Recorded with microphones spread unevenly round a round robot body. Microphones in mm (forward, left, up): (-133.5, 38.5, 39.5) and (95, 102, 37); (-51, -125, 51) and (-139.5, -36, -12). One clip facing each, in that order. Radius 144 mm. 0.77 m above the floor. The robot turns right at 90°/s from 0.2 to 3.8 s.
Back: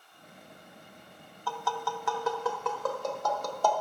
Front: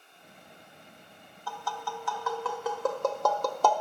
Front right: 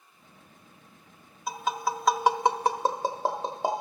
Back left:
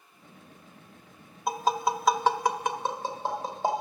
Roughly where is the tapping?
Behind.